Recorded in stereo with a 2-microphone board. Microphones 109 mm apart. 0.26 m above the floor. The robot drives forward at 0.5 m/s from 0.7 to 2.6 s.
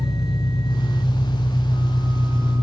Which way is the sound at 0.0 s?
40° left (ahead or behind).